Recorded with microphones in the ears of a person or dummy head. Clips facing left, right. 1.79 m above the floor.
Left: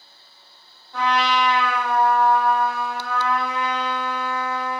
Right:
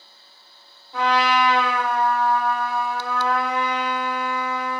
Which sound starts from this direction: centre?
A trumpet, at 0.9 s.